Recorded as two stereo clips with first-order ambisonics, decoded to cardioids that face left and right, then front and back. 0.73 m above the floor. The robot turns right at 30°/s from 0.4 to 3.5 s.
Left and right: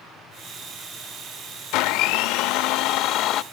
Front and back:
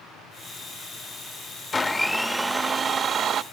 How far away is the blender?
About 0.5 m.